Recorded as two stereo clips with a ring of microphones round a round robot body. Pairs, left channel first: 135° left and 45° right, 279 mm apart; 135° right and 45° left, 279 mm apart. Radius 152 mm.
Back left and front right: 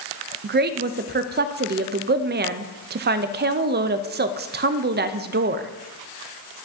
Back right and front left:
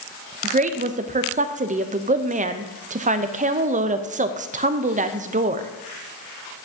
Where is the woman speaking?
5° right, 0.5 m.